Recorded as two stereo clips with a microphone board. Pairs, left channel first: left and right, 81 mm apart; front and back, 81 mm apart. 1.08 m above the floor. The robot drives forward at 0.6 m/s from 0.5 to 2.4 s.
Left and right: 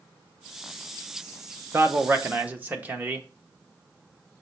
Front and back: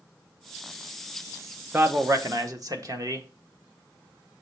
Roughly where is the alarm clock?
No alarm clock in this recording.